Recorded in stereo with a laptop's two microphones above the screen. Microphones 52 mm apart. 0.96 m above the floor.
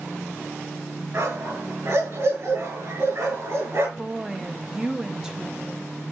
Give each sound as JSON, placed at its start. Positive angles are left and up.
{"t": 1.1, "sound": "a dog barking", "side_deg": -60, "distance_m": 5.5}
{"t": 4.0, "sound": "a woman speaking", "side_deg": -15, "distance_m": 1.3}